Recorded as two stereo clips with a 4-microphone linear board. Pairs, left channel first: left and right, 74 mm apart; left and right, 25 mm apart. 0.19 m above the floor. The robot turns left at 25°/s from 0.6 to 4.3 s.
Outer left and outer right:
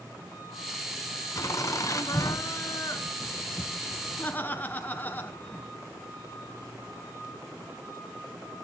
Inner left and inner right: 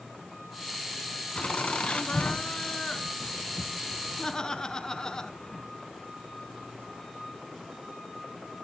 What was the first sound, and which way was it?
Laughter, 105° left.